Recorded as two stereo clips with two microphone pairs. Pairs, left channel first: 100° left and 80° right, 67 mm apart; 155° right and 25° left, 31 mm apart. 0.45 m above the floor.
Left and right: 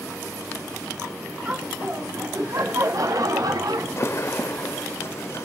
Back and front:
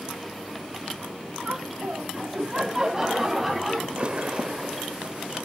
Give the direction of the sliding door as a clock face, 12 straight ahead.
10 o'clock.